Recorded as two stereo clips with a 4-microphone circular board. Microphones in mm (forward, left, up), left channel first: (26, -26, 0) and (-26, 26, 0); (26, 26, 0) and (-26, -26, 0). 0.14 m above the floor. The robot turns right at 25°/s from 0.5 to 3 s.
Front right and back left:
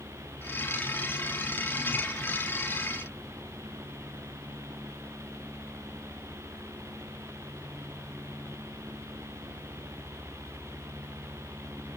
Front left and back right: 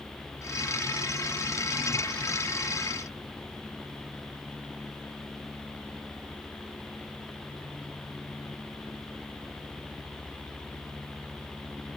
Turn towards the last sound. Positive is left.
No sound to turn to.